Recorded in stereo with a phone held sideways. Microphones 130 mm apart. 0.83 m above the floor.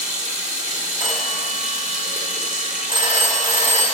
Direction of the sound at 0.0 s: 75° right (ahead or behind).